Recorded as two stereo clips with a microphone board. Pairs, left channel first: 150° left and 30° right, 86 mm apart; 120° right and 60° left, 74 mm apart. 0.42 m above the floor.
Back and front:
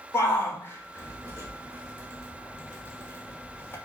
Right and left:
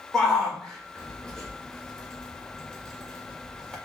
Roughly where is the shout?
Behind.